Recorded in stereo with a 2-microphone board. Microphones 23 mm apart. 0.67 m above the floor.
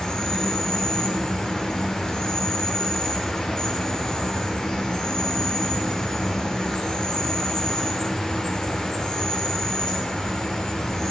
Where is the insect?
30° left (ahead or behind), 1.9 m.